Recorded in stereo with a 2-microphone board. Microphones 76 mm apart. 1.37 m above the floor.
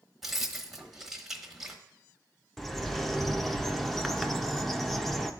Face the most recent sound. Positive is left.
turn(degrees=0)  # may be behind; listen again after turning